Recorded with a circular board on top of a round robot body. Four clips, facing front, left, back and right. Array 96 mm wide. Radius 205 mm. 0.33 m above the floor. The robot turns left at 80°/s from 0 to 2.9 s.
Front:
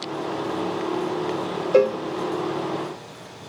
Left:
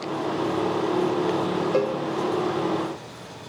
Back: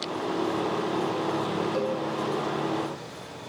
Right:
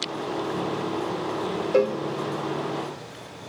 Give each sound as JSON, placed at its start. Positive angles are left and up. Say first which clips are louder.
{"t": 1.7, "sound": "a cowbell", "louder": "right 5 dB, front 10 dB", "azimuth_deg": -10, "distance_m": 0.8}